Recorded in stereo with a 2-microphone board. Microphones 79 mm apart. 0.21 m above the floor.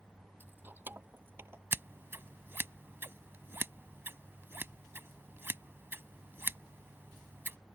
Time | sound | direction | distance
0.4 | keys jangling | 25° right (ahead or behind) | ?
1.7 | scissors | 30° right (ahead or behind) | ?